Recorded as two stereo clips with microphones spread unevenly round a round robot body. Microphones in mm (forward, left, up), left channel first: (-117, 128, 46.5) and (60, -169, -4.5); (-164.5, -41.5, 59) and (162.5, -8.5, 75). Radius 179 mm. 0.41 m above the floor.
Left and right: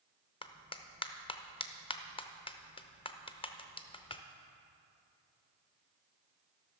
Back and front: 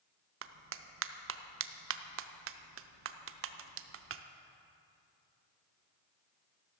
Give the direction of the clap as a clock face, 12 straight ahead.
11 o'clock.